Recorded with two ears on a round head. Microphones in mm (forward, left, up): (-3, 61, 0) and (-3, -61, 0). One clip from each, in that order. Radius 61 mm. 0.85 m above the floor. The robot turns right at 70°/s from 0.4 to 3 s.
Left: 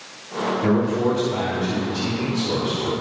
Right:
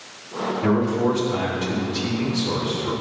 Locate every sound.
0.6 s a man speaking: 155° right, 3 m; by 2.9 s 5° left, 3 m